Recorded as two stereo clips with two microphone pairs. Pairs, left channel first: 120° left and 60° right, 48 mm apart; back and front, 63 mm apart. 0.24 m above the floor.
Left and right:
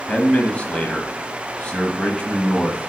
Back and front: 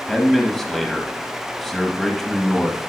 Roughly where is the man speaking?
Left.